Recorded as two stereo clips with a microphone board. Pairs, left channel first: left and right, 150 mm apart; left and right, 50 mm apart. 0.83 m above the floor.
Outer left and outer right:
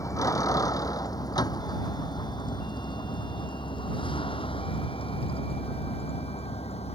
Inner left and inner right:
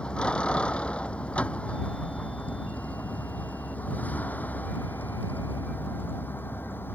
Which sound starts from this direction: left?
A vehicle, at 0.0 s.